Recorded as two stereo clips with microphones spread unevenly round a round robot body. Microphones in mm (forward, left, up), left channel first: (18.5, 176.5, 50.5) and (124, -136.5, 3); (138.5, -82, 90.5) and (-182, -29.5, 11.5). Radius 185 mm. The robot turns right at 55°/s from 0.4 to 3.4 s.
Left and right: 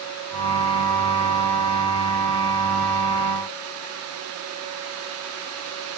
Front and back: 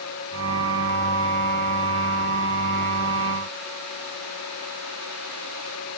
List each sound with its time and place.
Only background noise.